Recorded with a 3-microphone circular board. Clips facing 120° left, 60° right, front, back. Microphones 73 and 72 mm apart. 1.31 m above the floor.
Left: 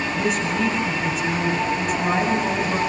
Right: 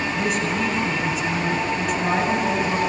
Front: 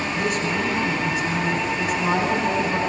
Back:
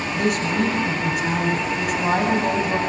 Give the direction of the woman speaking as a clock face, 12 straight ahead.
5 o'clock.